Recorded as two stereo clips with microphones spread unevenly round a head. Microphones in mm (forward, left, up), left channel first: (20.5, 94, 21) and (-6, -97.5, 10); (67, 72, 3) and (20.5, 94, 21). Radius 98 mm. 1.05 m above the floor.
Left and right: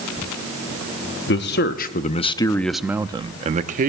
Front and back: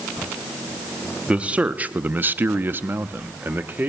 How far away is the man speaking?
About 0.8 m.